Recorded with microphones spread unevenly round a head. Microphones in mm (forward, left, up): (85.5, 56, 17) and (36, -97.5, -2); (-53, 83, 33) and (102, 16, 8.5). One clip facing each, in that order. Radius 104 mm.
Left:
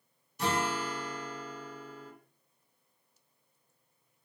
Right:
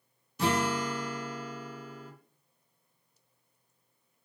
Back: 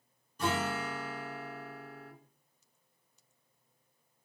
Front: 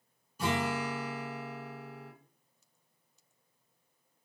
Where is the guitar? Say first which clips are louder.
Right 3 dB, front 1 dB; 105° right, 0.5 m.